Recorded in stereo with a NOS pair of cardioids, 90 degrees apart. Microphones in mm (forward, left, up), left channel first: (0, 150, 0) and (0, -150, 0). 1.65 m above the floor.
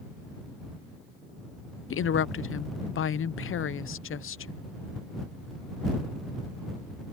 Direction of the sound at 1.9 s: 45° left.